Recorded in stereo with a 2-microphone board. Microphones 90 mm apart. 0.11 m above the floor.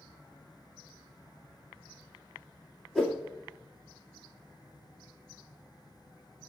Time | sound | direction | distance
3.0 | a whoosh | centre (ahead or behind) | 2 m